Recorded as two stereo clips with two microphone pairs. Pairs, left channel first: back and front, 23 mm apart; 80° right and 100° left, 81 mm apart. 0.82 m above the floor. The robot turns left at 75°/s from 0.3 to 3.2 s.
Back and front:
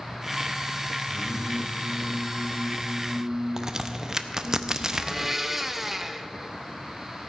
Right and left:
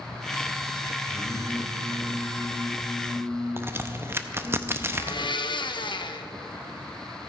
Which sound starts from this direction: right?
A blender, at 4.9 s.